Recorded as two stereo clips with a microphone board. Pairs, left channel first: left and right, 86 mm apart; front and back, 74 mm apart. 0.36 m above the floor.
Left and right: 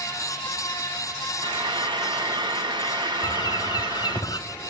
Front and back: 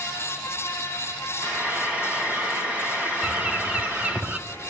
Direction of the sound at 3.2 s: 115° left.